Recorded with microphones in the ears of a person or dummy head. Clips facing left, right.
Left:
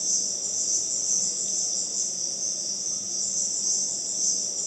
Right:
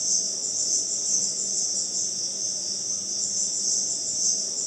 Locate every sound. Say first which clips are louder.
0.0 s an insect: right 1 dB; 10° right (ahead or behind), 1.2 m